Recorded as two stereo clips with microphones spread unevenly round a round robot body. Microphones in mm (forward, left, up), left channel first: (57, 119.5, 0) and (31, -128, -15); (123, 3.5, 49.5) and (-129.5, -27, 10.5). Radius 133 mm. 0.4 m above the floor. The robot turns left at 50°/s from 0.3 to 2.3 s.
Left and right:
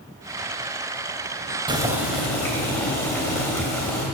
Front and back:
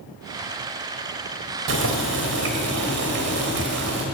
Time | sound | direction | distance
1.7 | boiling | 165° right | 2.5 m